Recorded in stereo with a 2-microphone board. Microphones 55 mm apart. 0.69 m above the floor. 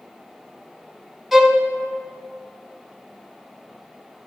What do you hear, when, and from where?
1.3 s a violin: centre (ahead or behind), 0.8 m